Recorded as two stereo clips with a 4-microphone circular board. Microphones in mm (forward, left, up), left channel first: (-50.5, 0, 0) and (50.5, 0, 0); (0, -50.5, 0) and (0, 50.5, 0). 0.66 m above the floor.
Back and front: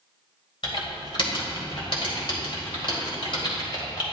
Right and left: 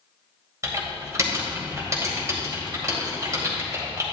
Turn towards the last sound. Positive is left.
turn(degrees=145)